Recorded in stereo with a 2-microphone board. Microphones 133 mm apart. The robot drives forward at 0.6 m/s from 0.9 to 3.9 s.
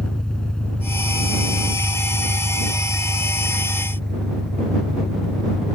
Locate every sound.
0.0 s an engine running: 5° left (ahead or behind)